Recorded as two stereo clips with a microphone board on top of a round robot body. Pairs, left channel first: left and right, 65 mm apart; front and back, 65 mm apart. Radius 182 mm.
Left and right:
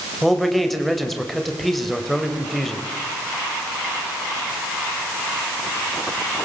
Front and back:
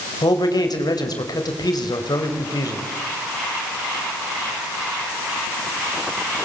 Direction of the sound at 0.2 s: Straight ahead.